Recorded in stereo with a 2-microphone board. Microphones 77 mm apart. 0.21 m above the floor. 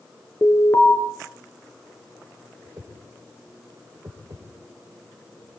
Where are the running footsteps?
No running footsteps in this recording.